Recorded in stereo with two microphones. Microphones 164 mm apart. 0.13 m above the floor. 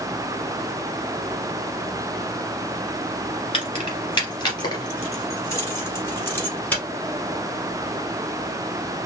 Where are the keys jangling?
35° left (ahead or behind), 1.5 m; by 6.8 s 10° left (ahead or behind), 2.5 m.